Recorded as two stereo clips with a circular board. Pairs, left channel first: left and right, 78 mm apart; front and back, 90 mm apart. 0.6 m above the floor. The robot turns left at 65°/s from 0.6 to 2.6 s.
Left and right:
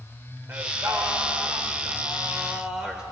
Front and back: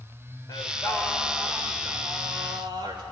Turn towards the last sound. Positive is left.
turn(degrees=-165)